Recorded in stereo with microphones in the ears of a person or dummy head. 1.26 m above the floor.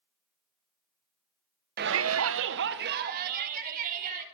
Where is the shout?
45° right (ahead or behind), 0.8 m.